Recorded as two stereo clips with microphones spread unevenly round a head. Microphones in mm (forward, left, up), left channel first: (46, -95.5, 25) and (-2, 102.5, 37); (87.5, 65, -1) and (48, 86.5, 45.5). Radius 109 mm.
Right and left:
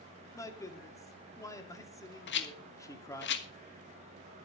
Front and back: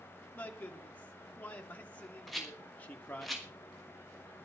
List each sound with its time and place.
0.3 s a man speaking: 5° right, 2.5 m
2.3 s a rattle: 80° right, 1.3 m